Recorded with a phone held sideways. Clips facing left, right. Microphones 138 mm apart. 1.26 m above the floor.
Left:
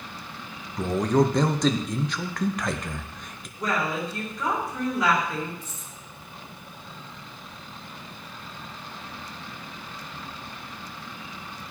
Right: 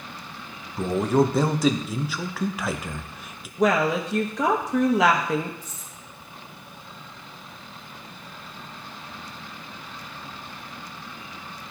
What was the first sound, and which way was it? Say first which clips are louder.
A man speaking: right 1 dB; 5° right (ahead or behind).